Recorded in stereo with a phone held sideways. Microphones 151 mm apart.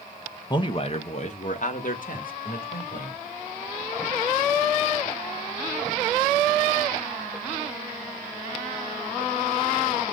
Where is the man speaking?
30° left (ahead or behind), 0.7 m; by 3.2 s 70° left (ahead or behind), 2.0 m.